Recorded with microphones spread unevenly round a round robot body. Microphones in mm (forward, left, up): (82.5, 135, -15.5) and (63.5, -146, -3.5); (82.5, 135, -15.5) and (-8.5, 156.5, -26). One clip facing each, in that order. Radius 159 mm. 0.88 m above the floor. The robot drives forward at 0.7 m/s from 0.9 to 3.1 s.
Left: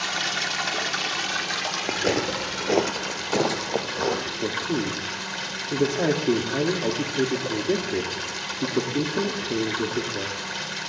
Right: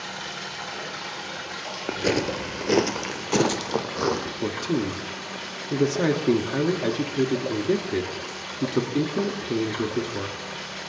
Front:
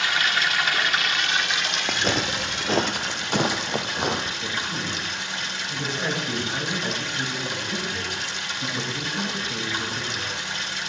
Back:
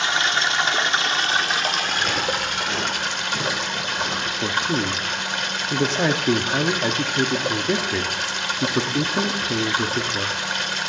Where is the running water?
105° left, 1.6 m; by 10.9 s 140° left, 2.5 m.